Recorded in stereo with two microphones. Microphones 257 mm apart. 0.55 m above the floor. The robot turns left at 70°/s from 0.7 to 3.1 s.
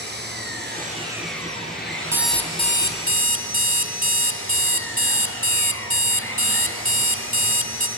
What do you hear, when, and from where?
0.0 s an engine running: 140° right, 6.5 m; by 8.0 s 55° left, 6.5 m
2.1 s an alarm clock: 170° right, 1.7 m; by 7.9 s 125° left, 1.7 m